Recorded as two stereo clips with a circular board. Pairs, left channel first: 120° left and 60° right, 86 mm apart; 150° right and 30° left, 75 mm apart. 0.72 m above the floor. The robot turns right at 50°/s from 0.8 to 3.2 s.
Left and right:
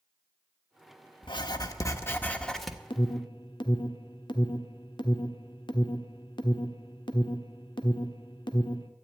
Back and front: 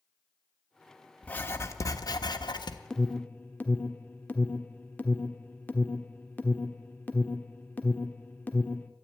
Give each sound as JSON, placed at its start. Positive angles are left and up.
{"t": 1.2, "sound": "writing", "azimuth_deg": 140, "distance_m": 1.1}
{"t": 2.9, "sound": "an alarm", "azimuth_deg": 130, "distance_m": 1.2}